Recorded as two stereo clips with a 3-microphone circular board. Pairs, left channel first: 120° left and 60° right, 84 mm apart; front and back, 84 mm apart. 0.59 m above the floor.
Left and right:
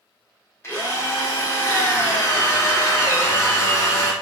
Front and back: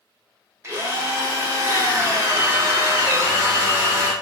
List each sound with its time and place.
0.6 s a drill: 150° left, 0.9 m